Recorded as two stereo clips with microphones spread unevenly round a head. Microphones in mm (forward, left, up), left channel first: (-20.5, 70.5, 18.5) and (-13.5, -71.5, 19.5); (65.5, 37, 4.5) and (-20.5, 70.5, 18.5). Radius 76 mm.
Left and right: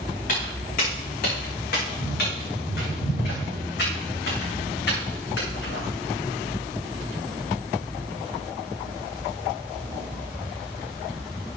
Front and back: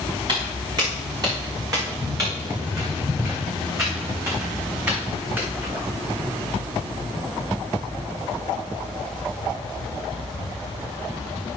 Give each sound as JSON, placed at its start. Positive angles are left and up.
{"t": 0.3, "sound": "footsteps", "azimuth_deg": 125, "distance_m": 6.5}